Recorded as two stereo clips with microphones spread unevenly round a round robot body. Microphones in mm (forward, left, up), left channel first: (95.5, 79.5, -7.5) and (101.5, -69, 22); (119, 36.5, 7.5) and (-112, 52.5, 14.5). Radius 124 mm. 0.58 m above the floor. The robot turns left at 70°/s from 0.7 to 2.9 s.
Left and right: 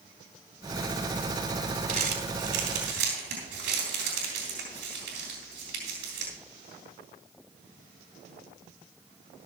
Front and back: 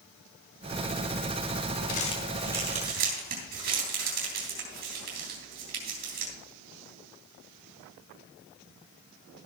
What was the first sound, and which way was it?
Crumpling, 60° right.